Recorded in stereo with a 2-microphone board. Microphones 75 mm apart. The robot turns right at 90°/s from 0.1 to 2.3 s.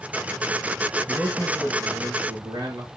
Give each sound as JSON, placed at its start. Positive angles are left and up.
{"t": 1.1, "sound": "a man speaking", "azimuth_deg": 165, "distance_m": 5.5}